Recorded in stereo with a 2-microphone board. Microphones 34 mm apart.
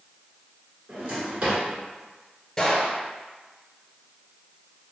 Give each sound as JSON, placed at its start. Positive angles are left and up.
{"t": 0.9, "sound": "a drawer", "side_deg": -40, "distance_m": 1.8}
{"t": 2.6, "sound": "a gunshot", "side_deg": 20, "distance_m": 1.0}